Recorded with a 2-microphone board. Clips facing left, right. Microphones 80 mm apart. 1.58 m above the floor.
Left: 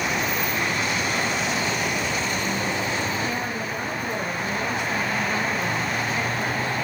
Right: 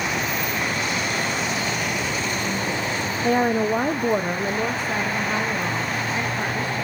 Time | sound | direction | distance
3.2 | a woman speaking | 50° right (ahead or behind) | 0.5 m